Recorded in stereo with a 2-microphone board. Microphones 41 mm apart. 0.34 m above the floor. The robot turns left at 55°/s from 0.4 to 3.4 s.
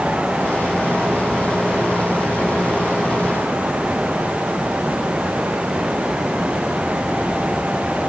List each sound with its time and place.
Only background noise.